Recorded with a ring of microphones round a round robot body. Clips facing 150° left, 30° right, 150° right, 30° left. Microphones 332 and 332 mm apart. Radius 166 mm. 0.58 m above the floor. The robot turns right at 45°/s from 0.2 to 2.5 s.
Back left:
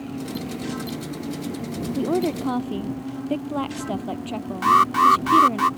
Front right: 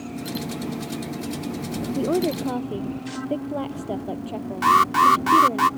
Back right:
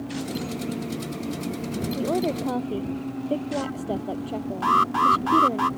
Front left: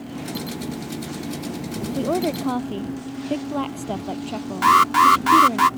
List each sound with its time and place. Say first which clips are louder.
1.9 s a woman speaking: even, front left 3 dB; 65° left; by 5.6 s 90° left
4.6 s an alarm: even, front left 6 dB; 50° left